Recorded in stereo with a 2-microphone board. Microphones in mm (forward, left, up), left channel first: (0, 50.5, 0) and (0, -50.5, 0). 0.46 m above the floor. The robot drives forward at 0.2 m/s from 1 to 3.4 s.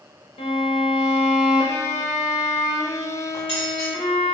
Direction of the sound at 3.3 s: 60° left (ahead or behind).